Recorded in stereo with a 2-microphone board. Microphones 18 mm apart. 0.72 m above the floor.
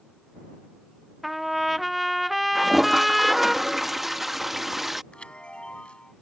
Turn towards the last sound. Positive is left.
turn(degrees=80)